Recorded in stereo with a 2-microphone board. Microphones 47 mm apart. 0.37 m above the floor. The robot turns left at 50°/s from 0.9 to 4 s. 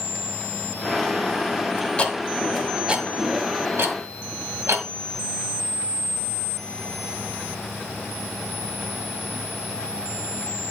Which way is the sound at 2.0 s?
25° left (ahead or behind).